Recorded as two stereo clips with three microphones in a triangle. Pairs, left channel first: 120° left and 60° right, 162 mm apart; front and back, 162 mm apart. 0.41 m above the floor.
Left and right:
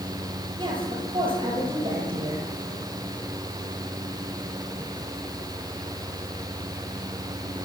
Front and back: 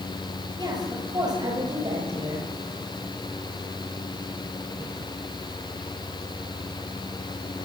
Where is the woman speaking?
115° right, 9 m.